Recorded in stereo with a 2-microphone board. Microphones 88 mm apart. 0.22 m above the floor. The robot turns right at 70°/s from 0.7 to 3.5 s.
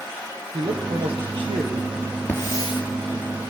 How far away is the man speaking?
About 6 m.